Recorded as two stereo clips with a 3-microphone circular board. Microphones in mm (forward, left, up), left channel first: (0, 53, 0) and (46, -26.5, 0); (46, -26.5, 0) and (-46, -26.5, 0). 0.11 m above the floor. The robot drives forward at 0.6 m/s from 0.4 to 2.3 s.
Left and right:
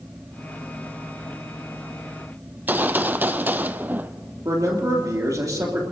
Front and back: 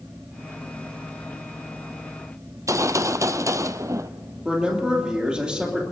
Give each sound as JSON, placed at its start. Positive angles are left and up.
{"t": 2.5, "sound": "a gunshot", "azimuth_deg": -125, "distance_m": 0.6}
{"t": 4.5, "sound": "a man speaking", "azimuth_deg": -100, "distance_m": 3.0}